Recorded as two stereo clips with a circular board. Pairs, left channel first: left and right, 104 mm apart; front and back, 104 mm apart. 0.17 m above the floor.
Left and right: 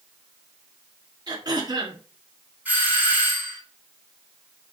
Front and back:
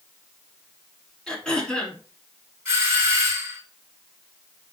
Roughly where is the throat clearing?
Right.